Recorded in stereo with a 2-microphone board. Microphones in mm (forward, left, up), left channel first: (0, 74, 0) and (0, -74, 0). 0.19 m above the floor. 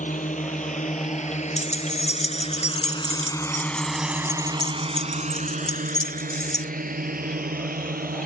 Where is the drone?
55° left (ahead or behind); by 8.3 s 65° right (ahead or behind).